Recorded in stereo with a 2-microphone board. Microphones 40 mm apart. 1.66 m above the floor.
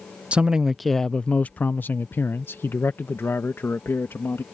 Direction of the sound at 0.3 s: 30° right (ahead or behind).